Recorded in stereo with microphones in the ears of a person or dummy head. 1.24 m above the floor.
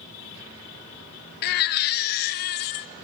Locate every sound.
1.4 s a baby crying: 45° left (ahead or behind), 0.6 m